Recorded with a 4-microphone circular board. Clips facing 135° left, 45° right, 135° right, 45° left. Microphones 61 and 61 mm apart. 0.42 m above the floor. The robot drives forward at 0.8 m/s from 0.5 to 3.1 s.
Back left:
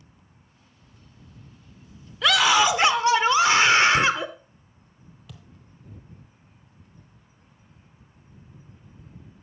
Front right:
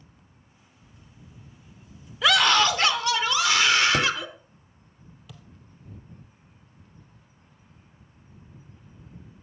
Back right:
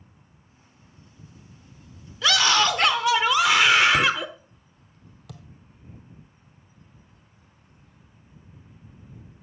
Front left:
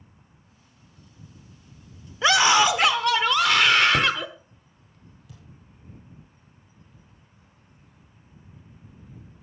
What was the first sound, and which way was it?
A scream, 35° left.